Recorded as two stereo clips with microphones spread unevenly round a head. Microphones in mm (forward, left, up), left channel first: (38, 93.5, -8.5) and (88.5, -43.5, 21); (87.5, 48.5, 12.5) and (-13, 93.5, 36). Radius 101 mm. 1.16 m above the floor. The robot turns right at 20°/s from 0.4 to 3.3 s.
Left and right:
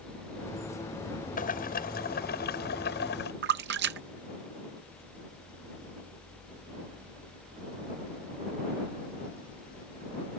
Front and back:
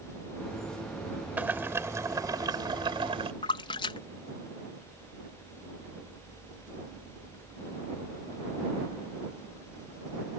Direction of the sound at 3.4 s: 80° right.